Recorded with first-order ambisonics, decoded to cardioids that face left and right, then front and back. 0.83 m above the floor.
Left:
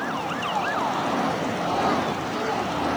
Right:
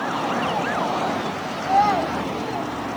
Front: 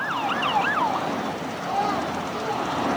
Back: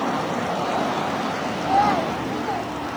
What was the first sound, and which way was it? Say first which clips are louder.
A child speaking: right 7 dB, back 6 dB; 130° right.